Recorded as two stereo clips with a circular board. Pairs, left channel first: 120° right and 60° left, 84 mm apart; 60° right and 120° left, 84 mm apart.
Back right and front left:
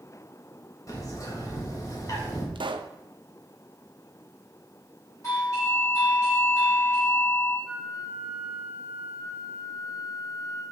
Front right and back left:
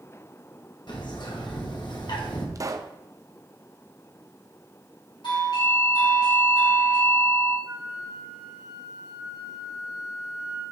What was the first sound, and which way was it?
A bird, 75° right.